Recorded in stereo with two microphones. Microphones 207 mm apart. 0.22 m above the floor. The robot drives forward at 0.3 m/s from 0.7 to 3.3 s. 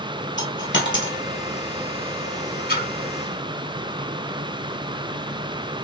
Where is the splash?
50° left (ahead or behind), 2.5 m.